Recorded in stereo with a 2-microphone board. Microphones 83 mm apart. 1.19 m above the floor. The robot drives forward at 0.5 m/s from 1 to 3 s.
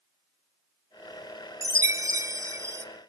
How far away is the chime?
About 0.9 m.